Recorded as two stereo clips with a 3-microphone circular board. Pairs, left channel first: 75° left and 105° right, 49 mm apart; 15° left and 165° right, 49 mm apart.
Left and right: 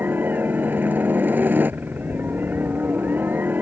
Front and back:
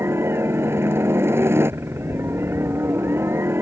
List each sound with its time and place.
0.0 s a helicopter: 150° right